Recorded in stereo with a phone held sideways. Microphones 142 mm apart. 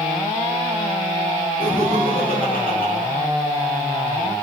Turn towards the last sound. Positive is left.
turn(degrees=85)